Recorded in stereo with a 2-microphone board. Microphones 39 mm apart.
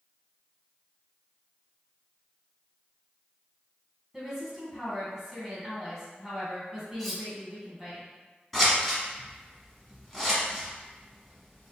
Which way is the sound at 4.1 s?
10° right (ahead or behind).